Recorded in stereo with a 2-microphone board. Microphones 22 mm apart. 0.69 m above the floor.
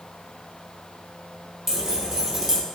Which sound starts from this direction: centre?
Keys jangling, at 1.7 s.